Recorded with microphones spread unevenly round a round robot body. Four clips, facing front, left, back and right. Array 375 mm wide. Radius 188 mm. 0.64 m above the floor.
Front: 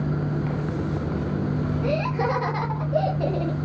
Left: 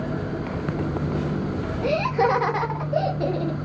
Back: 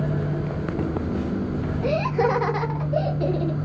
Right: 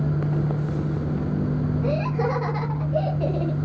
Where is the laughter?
115° left, 1.3 m; by 3.7 s 45° left, 1.1 m.